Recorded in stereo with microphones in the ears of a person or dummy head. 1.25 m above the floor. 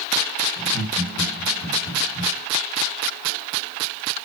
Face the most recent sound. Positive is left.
turn(degrees=25)  # may be behind; listen again after turning